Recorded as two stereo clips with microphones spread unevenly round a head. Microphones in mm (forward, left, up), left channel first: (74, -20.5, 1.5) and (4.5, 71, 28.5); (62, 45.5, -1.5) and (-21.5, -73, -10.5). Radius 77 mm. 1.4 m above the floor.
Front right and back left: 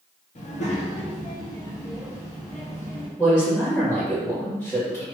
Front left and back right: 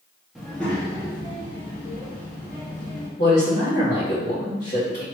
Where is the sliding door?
No sliding door in this recording.